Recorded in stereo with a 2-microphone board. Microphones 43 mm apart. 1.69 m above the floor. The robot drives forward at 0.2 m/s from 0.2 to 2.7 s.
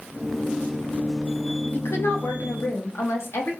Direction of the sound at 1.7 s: 85° left.